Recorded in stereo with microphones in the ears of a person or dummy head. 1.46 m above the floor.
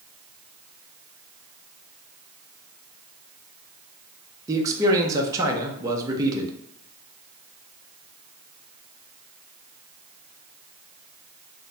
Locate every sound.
4.5 s a man speaking: 15° right (ahead or behind), 0.5 m